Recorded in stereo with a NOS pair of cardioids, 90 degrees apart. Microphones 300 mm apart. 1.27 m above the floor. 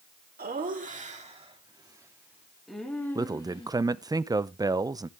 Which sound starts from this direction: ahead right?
Laughter, at 0.4 s.